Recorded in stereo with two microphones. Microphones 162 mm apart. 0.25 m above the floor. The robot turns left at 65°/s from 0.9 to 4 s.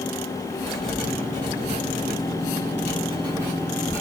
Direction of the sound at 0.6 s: Centre (ahead or behind).